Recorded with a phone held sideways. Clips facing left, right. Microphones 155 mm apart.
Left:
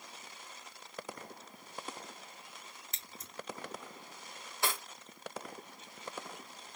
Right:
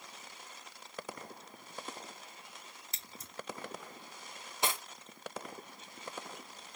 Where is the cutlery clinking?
20° right (ahead or behind), 0.8 m.